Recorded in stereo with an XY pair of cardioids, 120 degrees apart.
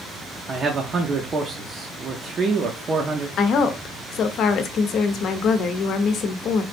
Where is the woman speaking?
60° left, 0.6 m.